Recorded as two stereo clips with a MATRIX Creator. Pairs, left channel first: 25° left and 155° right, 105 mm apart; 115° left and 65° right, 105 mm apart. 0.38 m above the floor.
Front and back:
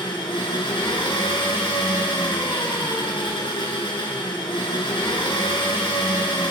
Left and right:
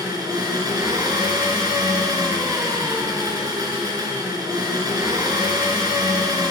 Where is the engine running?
15° right, 2.0 m.